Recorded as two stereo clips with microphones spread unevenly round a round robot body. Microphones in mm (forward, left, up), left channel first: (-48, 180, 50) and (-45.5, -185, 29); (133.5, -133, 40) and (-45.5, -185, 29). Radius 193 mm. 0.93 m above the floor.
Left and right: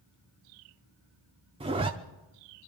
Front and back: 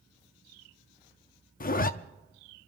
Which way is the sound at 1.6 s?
15° right.